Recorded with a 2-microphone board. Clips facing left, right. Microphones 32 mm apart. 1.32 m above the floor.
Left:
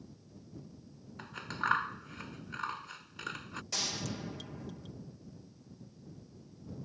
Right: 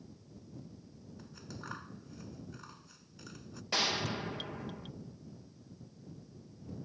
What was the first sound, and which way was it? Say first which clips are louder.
Scissors: left 13 dB; 65° left (ahead or behind).